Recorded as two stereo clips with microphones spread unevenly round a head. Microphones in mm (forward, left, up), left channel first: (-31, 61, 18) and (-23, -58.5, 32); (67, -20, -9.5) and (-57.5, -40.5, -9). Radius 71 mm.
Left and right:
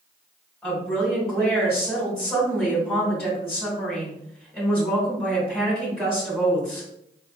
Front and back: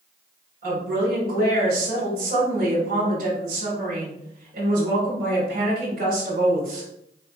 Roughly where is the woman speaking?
Behind.